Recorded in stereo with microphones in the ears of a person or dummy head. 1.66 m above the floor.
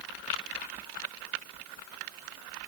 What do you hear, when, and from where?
Only background noise.